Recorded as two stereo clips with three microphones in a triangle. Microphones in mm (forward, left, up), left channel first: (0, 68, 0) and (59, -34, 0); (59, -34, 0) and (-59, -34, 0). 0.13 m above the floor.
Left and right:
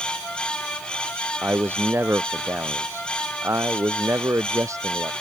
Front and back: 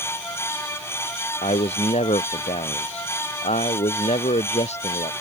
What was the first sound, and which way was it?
A man speaking, 10° left.